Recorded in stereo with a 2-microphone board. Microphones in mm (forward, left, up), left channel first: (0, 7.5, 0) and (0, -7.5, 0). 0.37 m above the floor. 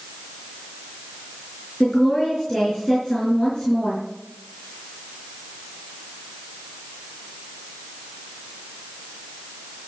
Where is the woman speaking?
45° left (ahead or behind), 4 m.